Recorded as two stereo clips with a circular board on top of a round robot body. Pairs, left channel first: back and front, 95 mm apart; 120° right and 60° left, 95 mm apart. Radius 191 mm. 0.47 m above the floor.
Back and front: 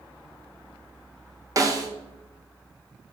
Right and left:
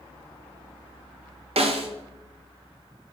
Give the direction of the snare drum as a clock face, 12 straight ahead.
10 o'clock.